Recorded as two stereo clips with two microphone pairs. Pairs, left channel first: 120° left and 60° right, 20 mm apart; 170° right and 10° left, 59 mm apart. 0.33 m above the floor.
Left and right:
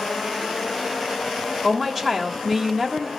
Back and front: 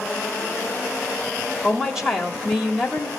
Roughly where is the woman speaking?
Ahead right.